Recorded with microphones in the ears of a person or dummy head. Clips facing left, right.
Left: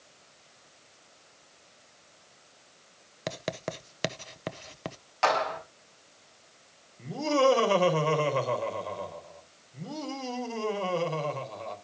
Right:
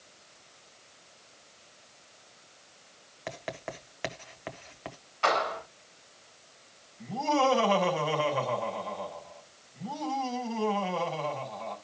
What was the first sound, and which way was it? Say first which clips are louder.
Writing: left 4 dB; 45° left (ahead or behind).